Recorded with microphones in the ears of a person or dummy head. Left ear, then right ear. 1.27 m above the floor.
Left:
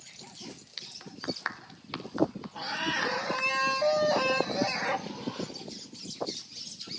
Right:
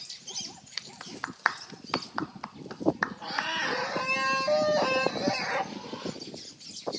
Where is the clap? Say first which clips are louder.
Right 5 dB; 35° right (ahead or behind), 0.6 m.